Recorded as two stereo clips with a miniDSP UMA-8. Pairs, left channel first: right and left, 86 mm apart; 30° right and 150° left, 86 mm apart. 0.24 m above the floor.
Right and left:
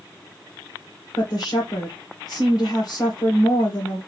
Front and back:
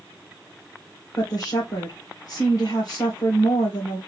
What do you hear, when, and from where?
1.2 s a woman speaking: 65° right, 2.5 m